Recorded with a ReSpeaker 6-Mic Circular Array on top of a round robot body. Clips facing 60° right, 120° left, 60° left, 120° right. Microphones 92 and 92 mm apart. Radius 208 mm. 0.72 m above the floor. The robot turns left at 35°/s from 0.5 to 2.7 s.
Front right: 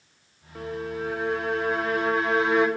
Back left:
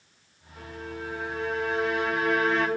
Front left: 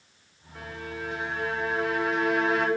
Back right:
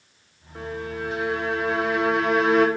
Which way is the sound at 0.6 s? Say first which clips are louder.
Front right 7 dB, back right 6 dB; 60° right.